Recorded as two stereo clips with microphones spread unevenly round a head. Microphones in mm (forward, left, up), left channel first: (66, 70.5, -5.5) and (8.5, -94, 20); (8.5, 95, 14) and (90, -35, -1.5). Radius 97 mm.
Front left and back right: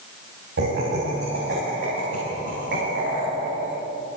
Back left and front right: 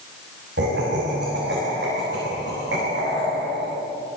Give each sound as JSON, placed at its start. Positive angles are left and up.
{"t": 0.6, "sound": "laughter", "azimuth_deg": -90, "distance_m": 6.5}